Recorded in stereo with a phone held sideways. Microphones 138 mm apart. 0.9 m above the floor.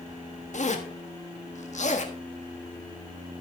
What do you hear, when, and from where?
0.5 s a zipper: 55° left (ahead or behind), 1.5 m